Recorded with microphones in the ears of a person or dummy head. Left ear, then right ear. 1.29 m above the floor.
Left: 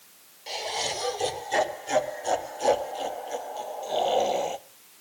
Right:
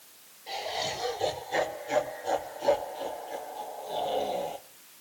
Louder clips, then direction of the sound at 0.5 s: Left 2 dB; 85° left.